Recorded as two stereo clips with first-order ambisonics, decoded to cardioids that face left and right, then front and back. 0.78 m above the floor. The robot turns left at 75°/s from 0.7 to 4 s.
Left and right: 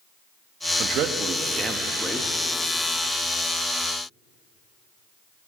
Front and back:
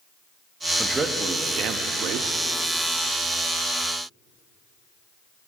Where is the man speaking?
95° right, 0.9 m; by 2.4 s 145° left, 0.9 m.